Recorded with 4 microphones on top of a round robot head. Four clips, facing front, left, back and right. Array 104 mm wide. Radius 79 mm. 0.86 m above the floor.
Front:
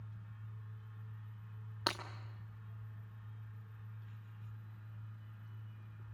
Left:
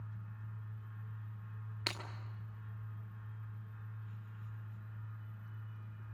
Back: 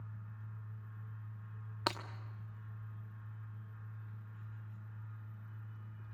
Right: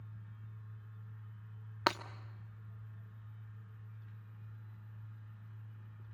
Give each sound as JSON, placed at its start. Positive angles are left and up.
{"t": 1.9, "sound": "breaking glass", "azimuth_deg": -105, "distance_m": 1.1}